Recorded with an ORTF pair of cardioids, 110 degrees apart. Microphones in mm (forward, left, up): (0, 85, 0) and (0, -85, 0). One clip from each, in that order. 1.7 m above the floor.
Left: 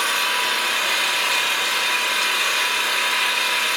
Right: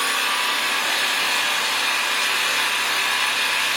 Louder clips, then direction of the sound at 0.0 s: Left 1 dB; 50° left.